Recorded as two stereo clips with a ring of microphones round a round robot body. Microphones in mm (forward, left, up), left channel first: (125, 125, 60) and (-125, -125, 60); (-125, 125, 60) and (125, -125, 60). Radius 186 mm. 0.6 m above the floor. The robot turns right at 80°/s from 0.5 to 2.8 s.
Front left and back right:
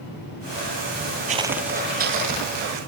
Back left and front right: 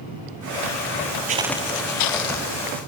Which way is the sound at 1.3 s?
90° right.